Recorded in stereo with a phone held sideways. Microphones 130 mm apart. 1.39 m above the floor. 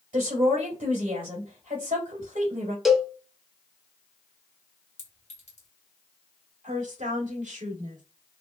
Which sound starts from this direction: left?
A clink, at 5.0 s.